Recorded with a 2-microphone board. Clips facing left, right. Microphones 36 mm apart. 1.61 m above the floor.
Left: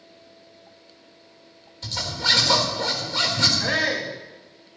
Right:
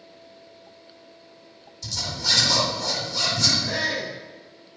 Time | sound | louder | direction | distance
1.8 | a zipper | left 3 dB | 45° left (ahead or behind) | 4.5 m
3.6 | a shout | left 3 dB | 80° left | 4.5 m